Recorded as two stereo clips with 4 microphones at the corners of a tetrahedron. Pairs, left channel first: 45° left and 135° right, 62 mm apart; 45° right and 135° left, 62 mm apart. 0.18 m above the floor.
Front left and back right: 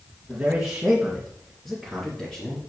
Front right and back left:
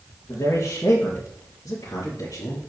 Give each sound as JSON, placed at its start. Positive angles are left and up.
{"t": 0.3, "sound": "a man speaking", "azimuth_deg": -60, "distance_m": 3.0}